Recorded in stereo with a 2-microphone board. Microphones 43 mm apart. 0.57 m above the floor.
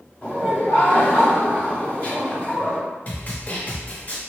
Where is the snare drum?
35° left (ahead or behind), 0.7 m.